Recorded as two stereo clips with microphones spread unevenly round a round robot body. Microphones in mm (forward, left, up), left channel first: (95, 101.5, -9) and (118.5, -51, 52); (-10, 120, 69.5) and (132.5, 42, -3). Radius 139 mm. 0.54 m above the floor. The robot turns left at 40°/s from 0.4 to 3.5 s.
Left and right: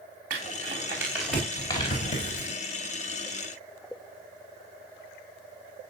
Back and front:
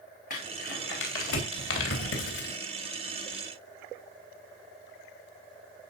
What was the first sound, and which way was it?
Crumpling, 145° right.